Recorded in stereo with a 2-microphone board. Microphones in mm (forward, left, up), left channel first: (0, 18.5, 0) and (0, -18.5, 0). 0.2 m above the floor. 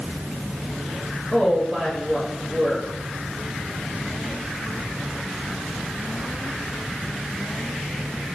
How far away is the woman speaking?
About 2.5 m.